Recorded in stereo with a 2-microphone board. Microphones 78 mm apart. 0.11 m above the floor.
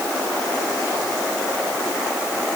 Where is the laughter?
I don't hear laughter.